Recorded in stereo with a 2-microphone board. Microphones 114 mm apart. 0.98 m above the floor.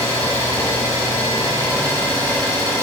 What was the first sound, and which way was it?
An engine running, 30° left (ahead or behind).